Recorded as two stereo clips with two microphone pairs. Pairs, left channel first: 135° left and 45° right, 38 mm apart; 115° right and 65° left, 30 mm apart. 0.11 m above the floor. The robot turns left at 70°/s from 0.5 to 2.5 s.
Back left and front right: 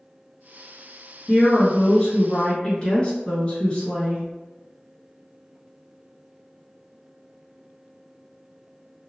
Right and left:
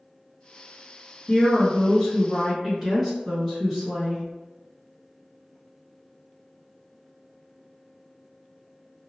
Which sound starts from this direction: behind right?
A woman speaking, at 1.3 s.